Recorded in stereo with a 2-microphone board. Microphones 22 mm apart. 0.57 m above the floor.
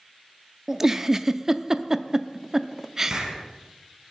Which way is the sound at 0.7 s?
20° right (ahead or behind).